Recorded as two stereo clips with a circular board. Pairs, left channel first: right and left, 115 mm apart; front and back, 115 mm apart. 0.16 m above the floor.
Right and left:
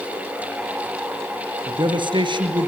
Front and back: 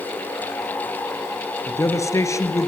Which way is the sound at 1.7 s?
55° left.